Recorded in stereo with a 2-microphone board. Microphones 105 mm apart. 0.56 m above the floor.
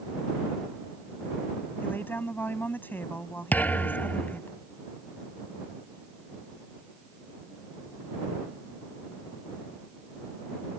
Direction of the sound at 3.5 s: 15° left (ahead or behind).